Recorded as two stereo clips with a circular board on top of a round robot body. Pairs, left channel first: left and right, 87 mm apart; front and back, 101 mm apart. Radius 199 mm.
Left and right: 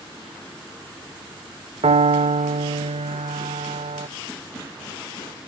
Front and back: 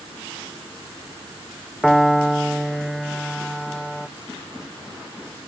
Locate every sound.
1.8 s a piano: 90° right